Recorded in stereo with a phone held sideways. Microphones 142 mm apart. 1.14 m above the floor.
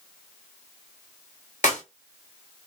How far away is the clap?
About 1.6 m.